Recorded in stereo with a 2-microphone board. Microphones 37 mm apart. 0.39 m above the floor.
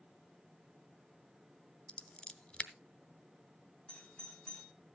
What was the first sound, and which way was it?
Scissors, 30° left (ahead or behind).